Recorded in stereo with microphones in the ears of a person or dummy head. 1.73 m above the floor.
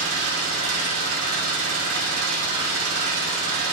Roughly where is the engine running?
Right.